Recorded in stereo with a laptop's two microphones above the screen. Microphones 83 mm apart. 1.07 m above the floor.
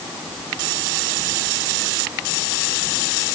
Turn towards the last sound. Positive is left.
No sound to turn to.